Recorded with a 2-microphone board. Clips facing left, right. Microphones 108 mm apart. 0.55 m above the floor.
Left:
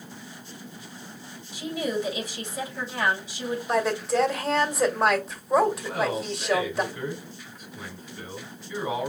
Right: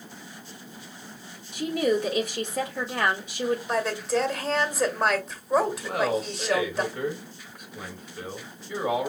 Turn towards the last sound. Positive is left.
turn(degrees=-55)  # may be behind; listen again after turning